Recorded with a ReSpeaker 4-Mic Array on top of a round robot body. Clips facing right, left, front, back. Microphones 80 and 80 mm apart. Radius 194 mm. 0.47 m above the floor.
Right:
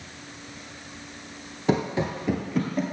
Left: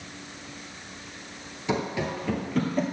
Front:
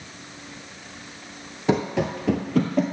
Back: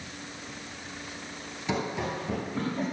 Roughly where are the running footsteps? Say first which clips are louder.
Right 3 dB, front 8 dB; ahead right.